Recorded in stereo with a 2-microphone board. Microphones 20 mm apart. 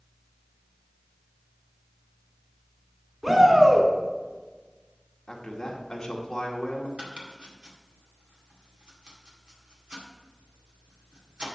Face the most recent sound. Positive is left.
turn(degrees=-60)  # may be behind; listen again after turning